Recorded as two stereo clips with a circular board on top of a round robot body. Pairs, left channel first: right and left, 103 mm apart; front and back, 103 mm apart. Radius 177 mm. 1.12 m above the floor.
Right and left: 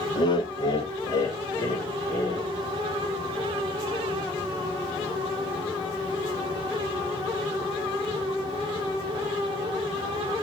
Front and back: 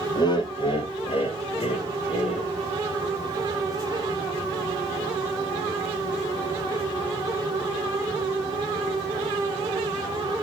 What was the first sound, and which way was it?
Laughter, 50° right.